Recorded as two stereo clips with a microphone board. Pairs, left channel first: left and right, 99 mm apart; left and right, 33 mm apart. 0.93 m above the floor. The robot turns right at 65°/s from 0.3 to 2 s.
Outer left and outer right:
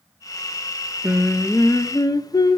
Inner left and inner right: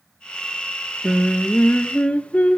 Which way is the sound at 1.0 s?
20° right.